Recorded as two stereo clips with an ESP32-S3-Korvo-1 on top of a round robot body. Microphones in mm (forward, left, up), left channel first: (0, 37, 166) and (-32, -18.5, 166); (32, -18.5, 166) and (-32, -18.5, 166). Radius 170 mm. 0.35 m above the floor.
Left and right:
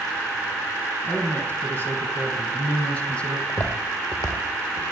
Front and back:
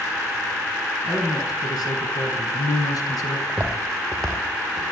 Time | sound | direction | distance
1.0 | a man speaking | 5° left | 6.5 m
3.5 | footsteps | 95° left | 4.5 m